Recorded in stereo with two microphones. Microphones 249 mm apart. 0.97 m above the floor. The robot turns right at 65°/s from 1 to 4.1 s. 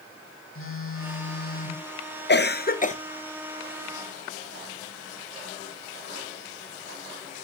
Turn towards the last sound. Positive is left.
turn(degrees=-145)